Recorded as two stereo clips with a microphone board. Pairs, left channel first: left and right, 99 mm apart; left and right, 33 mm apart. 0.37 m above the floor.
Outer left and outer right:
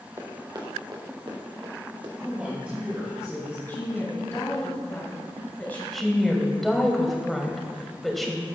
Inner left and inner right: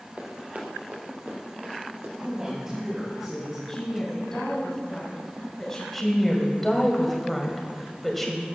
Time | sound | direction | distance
0.2 | running footsteps | 45° right (ahead or behind) | 2 m
2.2 | a man speaking | 15° right (ahead or behind) | 2.5 m
3.7 | a woman speaking | 20° left (ahead or behind) | 2.5 m
5.9 | a woman speaking | centre (ahead or behind) | 1.5 m